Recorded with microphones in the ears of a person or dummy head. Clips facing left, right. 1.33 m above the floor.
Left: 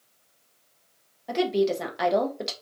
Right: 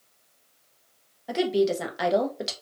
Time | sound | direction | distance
1.3 | a woman speaking | centre (ahead or behind) | 0.6 m